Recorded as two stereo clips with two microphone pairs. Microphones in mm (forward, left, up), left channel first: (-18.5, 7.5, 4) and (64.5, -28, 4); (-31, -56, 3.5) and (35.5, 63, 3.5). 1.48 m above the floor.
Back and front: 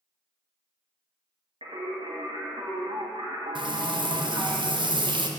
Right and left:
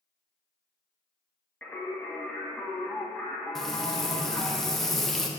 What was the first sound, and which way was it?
Singing, 40° right.